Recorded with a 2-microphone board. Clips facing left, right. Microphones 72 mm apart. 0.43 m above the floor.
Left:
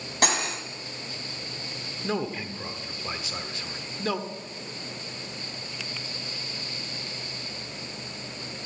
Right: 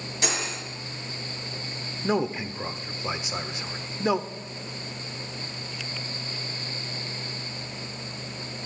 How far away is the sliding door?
No sliding door in this recording.